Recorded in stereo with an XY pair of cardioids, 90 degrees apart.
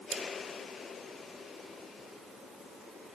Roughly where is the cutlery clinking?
Ahead right.